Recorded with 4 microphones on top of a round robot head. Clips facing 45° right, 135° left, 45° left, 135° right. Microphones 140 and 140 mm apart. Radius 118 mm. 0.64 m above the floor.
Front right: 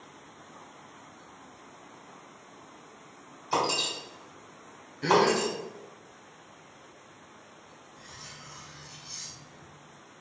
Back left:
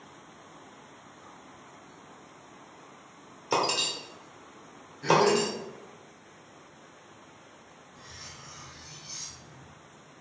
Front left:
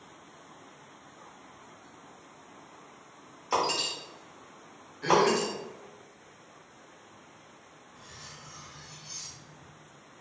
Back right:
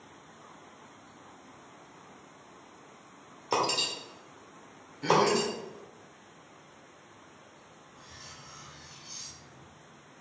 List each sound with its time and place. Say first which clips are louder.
3.5 s breaking glass: back left 1 dB, even; 160° left, 1.1 m
5.0 s a gasp: back left 1 dB, front left 1 dB; 60° right, 0.7 m
8.0 s cutlery clinking: even, front left 2 dB; 125° left, 1.9 m